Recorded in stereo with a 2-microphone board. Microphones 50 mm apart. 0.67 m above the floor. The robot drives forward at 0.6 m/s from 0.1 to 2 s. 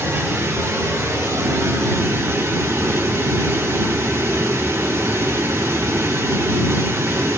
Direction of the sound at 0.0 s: 80° right.